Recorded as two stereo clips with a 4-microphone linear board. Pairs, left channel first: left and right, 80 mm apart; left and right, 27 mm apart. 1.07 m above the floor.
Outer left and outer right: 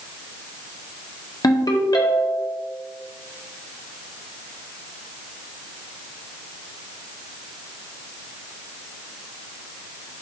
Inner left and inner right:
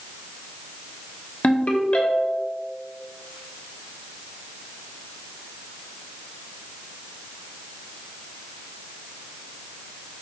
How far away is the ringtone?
About 0.8 m.